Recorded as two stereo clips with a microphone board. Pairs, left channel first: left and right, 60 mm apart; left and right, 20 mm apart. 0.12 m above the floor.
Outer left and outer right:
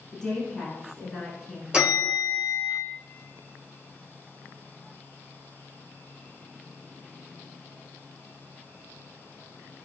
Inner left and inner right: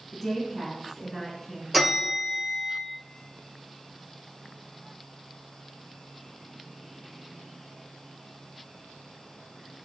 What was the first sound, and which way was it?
A woman speaking, 10° left (ahead or behind).